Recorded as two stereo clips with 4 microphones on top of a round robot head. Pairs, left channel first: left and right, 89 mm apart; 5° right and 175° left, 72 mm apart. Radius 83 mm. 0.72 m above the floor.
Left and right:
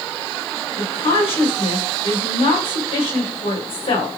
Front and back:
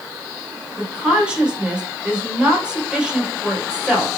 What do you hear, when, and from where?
0.8 s a woman speaking: 100° left, 3 m